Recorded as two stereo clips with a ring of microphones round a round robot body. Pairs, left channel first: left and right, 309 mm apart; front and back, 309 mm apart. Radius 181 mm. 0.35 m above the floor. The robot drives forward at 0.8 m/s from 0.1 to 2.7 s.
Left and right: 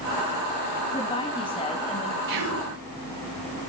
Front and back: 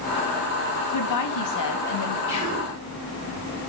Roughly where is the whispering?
Right.